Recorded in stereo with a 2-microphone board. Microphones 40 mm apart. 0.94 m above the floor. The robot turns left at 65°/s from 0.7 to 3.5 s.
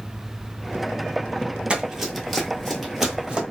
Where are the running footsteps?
25° right (ahead or behind), 1.1 m; by 3.4 s 35° right (ahead or behind), 1.3 m.